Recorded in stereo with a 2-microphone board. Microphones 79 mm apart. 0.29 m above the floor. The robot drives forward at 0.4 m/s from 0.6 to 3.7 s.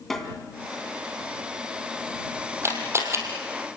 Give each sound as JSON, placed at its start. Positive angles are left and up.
{"t": 0.1, "sound": "a snare drum", "side_deg": 5, "distance_m": 2.5}
{"t": 2.6, "sound": "a camera shutter", "side_deg": -35, "distance_m": 4.5}